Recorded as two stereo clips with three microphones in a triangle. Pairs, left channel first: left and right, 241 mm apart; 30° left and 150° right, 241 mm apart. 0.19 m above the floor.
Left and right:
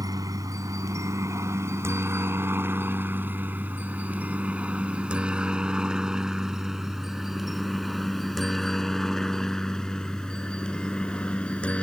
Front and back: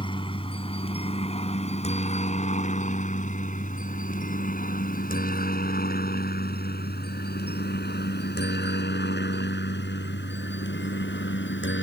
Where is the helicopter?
25° right; by 11.8 s 5° left.